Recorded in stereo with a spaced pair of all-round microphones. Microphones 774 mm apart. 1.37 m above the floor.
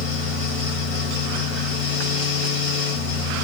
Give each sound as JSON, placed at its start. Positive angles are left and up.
{"t": 0.0, "sound": "a fan", "side_deg": 70, "distance_m": 1.6}